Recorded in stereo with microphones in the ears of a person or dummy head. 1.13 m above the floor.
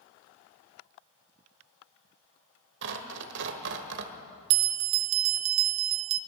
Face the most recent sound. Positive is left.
turn(degrees=-80)